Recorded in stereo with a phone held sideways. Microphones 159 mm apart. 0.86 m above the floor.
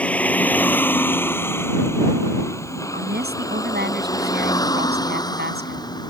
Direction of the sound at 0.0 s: 10° left (ahead or behind).